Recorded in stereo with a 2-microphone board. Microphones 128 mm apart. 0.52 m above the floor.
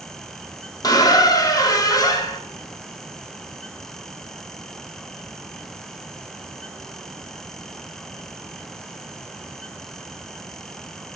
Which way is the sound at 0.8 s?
30° left (ahead or behind).